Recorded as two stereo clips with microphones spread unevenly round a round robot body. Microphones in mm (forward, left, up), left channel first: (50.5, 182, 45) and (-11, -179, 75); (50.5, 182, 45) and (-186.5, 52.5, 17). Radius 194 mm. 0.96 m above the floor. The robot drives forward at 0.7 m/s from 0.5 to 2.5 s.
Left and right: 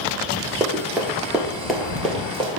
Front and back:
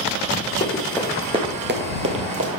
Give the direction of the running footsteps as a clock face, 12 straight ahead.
1 o'clock.